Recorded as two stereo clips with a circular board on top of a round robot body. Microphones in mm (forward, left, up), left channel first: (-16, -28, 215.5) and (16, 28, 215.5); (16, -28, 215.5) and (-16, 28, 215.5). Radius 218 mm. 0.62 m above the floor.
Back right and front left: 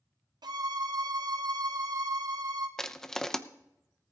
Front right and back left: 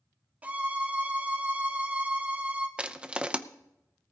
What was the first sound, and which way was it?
A violin, 50° left.